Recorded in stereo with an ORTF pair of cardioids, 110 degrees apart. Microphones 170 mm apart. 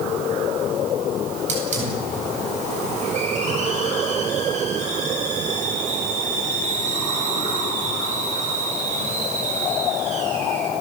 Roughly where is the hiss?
Ahead right.